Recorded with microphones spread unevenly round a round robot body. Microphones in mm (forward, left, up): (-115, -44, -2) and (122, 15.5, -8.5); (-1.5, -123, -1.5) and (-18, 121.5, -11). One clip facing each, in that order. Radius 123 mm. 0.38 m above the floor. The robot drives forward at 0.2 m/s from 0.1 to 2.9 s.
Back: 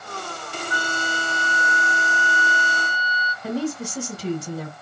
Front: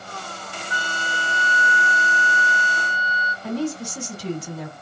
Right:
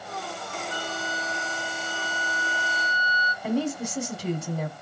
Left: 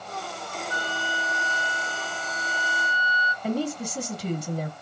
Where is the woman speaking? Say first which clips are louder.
Even, right 1 dB; 170° right, 1.8 m.